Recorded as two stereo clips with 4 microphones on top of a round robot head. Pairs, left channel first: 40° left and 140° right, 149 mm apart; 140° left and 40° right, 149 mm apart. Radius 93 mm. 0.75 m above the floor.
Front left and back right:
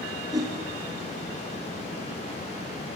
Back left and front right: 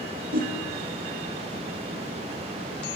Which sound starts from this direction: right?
A whoosh, at 0.3 s.